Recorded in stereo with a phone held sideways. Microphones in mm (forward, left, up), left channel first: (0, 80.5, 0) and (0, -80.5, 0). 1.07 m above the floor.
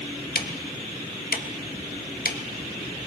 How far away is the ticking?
About 0.8 m.